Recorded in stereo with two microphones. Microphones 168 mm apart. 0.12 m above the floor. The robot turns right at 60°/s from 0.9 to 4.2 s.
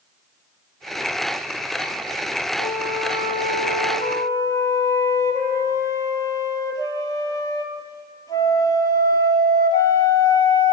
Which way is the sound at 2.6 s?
60° left.